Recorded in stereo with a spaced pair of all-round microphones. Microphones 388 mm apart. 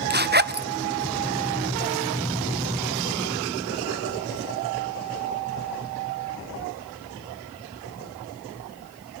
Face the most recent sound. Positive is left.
turn(degrees=-25)  # may be behind; listen again after turning